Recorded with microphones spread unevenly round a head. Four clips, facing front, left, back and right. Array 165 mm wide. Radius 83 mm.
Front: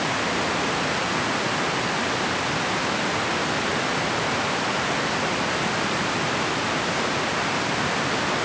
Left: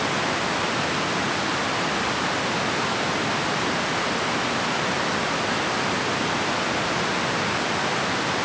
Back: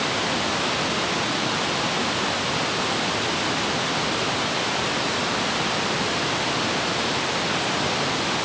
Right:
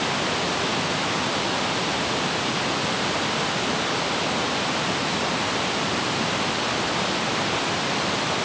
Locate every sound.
Only background noise.